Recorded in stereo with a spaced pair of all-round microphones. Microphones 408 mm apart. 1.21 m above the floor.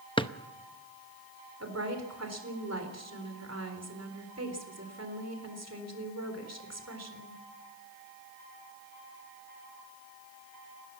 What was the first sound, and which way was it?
A drawer, 10° left (ahead or behind).